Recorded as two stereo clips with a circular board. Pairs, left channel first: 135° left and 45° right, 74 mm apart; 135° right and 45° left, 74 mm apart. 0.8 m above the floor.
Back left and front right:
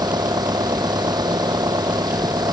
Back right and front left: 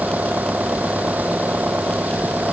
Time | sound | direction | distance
0.0 | an engine running | 20° right | ?